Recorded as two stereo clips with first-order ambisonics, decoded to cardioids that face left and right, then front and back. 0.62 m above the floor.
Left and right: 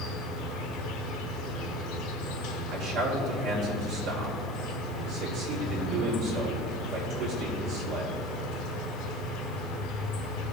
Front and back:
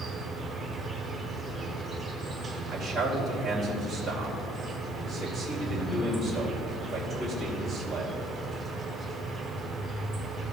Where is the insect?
95° left, 1.2 m.